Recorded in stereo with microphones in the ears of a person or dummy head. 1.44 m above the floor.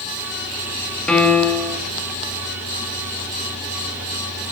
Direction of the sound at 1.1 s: 5° left (ahead or behind).